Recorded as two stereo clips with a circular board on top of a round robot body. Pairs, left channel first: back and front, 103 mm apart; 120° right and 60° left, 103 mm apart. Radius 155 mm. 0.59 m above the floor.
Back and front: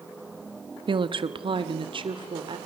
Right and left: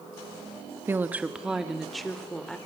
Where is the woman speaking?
Straight ahead, 1.4 m; by 2.6 s 35° right, 2.5 m.